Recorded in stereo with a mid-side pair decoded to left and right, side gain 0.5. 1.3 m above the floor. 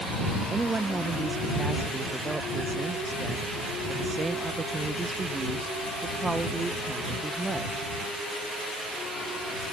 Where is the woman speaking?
25° right.